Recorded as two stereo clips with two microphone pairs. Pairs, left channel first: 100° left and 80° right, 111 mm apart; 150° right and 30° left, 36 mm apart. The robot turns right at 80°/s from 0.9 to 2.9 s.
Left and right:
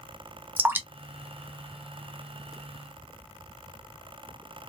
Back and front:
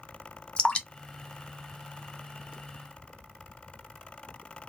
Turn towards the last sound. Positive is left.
turn(degrees=30)